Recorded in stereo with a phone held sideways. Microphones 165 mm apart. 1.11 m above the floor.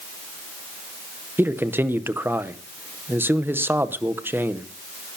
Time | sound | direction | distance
1.4 | a man speaking | 15° right (ahead or behind) | 0.8 m